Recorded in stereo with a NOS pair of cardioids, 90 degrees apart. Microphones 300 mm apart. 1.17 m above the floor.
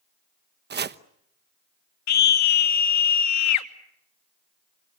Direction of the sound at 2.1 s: 65° left.